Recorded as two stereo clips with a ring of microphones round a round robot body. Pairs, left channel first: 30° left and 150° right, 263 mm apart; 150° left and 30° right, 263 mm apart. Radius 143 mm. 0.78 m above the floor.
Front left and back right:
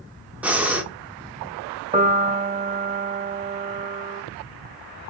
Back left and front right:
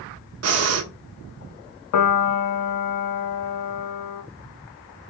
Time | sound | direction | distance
0.4 | breathing | 65° right | 0.9 m
1.9 | a piano | 145° left | 0.9 m